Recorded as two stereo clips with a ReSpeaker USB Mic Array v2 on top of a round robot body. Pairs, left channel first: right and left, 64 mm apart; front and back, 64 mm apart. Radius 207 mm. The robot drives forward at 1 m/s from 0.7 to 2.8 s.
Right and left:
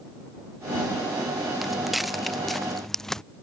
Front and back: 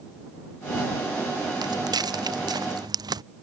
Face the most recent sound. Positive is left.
turn(degrees=-175)